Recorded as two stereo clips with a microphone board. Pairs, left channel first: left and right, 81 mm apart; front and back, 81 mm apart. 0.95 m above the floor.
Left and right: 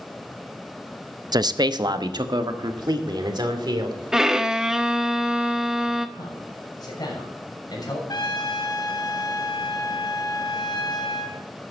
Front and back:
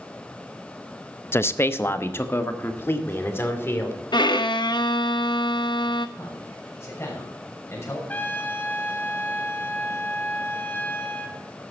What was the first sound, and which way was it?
A man speaking, 60° right.